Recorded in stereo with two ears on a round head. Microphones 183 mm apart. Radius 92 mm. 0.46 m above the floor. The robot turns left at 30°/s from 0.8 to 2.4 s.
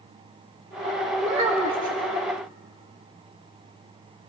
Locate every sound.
1.2 s a child speaking: 35° right (ahead or behind), 1.1 m; by 2.0 s 20° right (ahead or behind), 1.1 m